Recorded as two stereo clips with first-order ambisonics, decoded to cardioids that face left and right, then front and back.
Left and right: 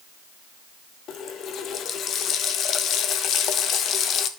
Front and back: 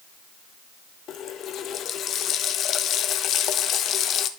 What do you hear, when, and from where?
1.1 s a running tap: 45° left, 0.6 m